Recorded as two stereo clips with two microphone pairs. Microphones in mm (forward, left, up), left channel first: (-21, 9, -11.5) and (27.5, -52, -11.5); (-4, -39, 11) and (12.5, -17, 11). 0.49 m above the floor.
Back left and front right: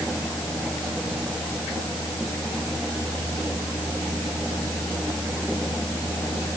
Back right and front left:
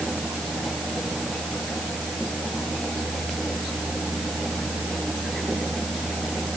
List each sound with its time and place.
Only background noise.